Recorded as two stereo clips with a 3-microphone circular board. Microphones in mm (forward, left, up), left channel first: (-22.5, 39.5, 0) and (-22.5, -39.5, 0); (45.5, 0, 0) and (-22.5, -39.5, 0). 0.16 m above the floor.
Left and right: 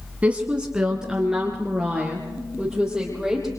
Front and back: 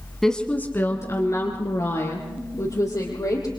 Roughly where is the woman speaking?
Ahead right.